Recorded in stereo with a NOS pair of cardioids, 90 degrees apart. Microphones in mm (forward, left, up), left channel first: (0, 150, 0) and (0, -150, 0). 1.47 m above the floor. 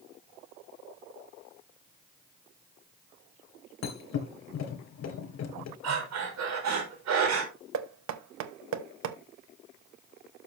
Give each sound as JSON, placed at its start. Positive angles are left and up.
{"t": 3.8, "sound": "a thud", "azimuth_deg": 60, "distance_m": 3.5}
{"t": 5.8, "sound": "breathing", "azimuth_deg": -60, "distance_m": 4.5}
{"t": 7.7, "sound": "knocking", "azimuth_deg": -65, "distance_m": 1.2}